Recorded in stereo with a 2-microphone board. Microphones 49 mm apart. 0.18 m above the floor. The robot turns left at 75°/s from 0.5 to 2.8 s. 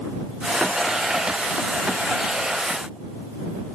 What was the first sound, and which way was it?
Only background noise.